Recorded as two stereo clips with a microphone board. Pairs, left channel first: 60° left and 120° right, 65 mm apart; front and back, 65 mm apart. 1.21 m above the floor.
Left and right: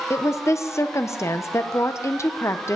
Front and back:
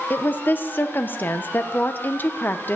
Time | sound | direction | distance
0.1 | a woman speaking | 50° left | 0.8 m